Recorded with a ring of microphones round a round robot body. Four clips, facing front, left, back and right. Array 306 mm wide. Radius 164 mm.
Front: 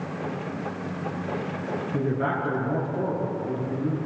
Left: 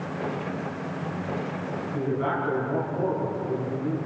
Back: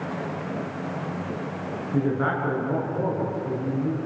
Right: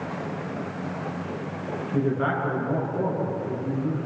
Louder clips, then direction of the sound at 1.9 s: Right 3 dB, back 3 dB; 145° right.